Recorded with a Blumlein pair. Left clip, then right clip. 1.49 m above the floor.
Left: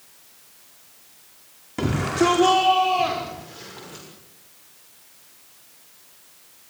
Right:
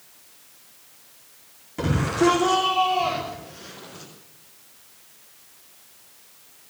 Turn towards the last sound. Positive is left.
turn(degrees=25)